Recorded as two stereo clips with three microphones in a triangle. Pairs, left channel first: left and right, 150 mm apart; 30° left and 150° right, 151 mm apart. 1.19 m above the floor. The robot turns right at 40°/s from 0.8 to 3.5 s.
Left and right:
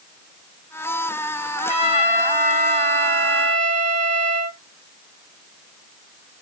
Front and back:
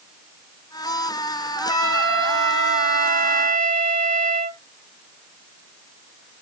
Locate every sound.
1.6 s a trumpet: 130° left, 3.5 m; by 4.6 s 150° right, 3.5 m